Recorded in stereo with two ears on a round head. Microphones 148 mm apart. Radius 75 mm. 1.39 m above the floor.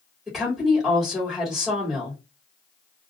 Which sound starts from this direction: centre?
A woman speaking, at 0.3 s.